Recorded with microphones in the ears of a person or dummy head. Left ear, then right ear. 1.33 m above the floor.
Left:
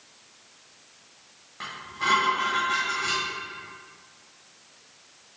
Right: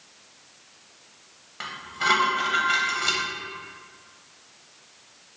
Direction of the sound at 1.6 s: 25° right (ahead or behind).